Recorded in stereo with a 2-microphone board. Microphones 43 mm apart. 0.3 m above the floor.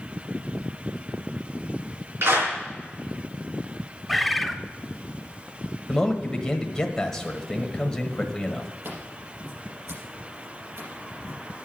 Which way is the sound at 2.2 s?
70° right (ahead or behind).